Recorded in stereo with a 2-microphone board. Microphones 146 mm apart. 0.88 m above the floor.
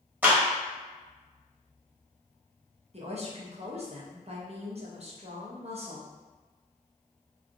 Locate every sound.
0.2 s a clap: 15° right (ahead or behind), 1.1 m
2.9 s a woman speaking: 45° right (ahead or behind), 0.8 m